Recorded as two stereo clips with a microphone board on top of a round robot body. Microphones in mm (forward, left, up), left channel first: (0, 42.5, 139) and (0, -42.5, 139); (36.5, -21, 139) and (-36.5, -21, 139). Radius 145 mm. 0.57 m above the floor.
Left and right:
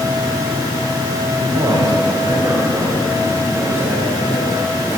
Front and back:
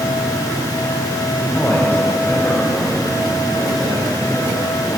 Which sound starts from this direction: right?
A man speaking, at 1.4 s.